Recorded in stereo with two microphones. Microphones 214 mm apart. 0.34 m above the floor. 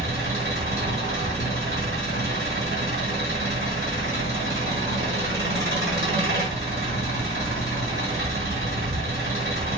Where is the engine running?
65° right (ahead or behind), 1.9 m.